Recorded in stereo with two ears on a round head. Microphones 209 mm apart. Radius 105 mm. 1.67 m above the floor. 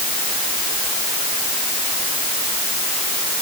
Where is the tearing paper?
No tearing paper in this recording.